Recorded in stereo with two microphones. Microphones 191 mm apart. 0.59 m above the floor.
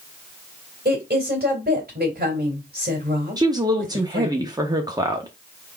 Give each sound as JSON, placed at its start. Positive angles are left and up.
{"t": 0.8, "sound": "a woman speaking", "side_deg": -55, "distance_m": 2.5}
{"t": 3.4, "sound": "a woman speaking", "side_deg": -20, "distance_m": 0.7}